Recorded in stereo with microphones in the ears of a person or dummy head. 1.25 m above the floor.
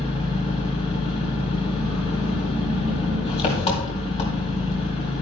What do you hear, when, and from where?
0.0 s an engine running: 30° left (ahead or behind), 2.5 m